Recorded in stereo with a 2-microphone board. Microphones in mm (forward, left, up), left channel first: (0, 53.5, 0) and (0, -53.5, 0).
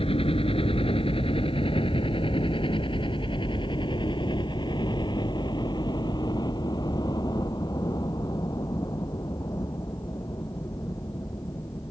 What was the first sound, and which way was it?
A helicopter, 60° left (ahead or behind).